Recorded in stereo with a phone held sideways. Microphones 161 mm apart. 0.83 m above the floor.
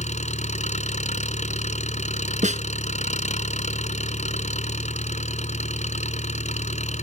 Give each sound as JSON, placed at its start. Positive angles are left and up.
{"t": 0.0, "sound": "an engine running", "side_deg": 45}
{"t": 2.4, "sound": "a snare drum", "side_deg": -45}